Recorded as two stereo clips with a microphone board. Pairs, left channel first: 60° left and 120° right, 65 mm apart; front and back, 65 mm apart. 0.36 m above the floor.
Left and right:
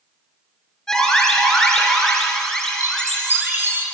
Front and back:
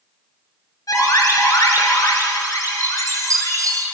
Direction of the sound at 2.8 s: 175° right.